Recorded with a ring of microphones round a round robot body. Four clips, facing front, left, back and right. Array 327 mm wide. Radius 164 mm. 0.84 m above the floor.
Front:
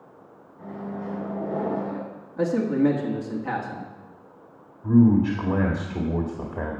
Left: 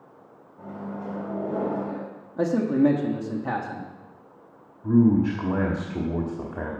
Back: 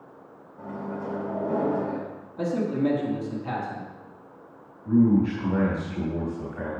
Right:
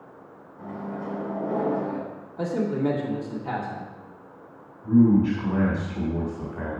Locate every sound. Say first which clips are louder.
0.6 s a microwave: right 1 dB, back 1 dB; 165° left, 4 m
2.4 s a man speaking: left 5 dB, front 4 dB; 80° left, 1.4 m
4.8 s a man speaking: right 1 dB, front 2 dB; 40° left, 1.7 m